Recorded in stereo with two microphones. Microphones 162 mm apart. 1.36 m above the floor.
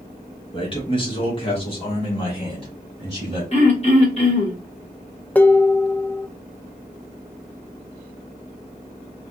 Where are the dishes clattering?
10° left (ahead or behind), 0.5 m.